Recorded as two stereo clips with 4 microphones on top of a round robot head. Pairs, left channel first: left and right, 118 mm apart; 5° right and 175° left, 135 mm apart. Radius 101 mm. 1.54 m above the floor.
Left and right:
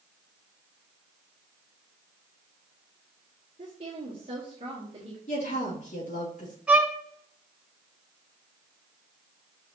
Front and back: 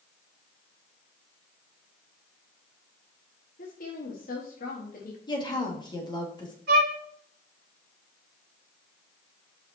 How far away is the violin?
About 1.5 m.